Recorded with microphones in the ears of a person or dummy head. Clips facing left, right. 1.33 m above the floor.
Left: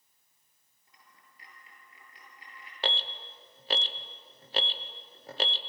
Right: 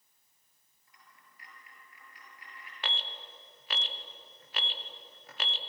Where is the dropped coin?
25° left (ahead or behind), 8 m.